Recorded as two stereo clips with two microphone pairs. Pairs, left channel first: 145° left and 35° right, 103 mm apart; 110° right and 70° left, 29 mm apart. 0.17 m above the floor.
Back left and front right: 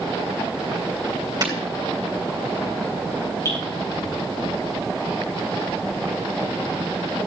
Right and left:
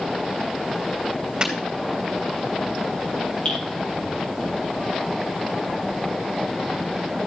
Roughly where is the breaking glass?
Ahead.